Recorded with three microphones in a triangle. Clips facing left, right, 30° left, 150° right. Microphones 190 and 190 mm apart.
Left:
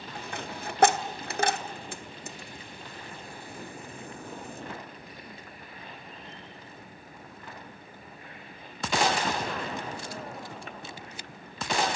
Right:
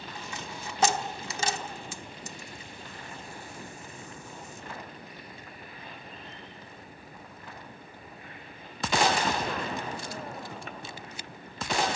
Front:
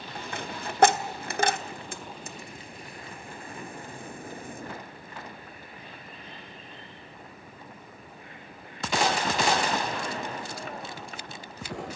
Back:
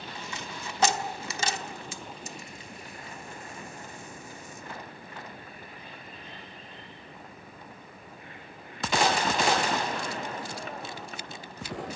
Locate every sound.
0.1 s a dropped coin: 60° left, 1.0 m